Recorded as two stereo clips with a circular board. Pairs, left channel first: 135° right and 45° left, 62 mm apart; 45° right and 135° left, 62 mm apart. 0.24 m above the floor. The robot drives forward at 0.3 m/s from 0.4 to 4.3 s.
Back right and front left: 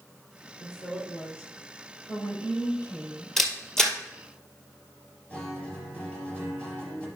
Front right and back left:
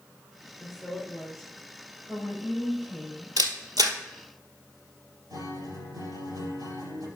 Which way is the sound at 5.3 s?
155° left.